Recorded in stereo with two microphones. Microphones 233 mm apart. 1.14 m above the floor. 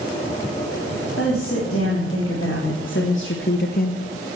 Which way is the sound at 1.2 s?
65° left (ahead or behind).